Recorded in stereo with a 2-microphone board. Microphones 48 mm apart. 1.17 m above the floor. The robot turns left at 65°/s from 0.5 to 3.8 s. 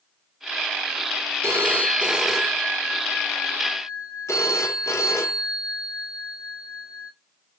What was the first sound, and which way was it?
A phone ringing, 120° right.